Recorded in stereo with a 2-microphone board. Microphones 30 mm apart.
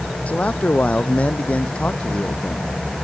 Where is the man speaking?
55° left (ahead or behind); by 2.7 s 40° left (ahead or behind).